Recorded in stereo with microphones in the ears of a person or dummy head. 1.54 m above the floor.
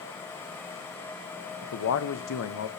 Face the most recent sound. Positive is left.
turn(degrees=70)  # may be behind; listen again after turning